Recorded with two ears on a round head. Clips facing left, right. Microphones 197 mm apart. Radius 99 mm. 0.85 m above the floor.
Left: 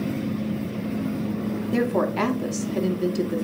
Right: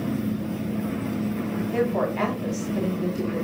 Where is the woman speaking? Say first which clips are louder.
Left 2 dB; 50° left (ahead or behind), 2 m.